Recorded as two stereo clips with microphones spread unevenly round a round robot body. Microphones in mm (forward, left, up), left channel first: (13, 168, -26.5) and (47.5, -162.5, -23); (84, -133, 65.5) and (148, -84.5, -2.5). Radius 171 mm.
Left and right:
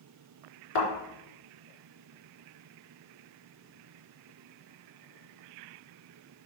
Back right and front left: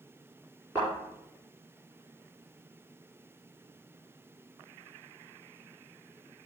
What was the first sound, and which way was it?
A thud, 130° left.